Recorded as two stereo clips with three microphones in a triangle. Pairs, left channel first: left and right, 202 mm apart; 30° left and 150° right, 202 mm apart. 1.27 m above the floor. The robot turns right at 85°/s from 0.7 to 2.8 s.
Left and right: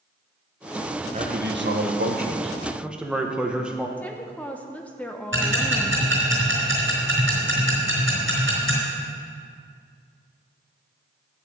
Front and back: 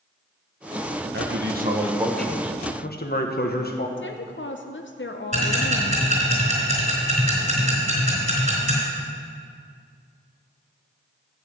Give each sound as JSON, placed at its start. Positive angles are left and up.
{"t": 1.1, "sound": "a man speaking", "azimuth_deg": -145, "distance_m": 1.3}
{"t": 4.0, "sound": "a woman speaking", "azimuth_deg": 5, "distance_m": 0.7}
{"t": 5.3, "sound": "ticking", "azimuth_deg": -100, "distance_m": 4.0}